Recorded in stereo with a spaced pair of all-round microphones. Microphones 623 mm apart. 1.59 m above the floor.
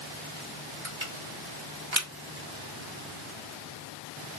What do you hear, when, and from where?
0.8 s crushing: 45° right (ahead or behind), 1.4 m